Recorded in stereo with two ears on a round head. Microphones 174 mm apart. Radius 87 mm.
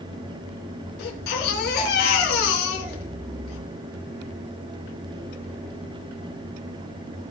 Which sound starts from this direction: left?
A baby crying, at 1.0 s.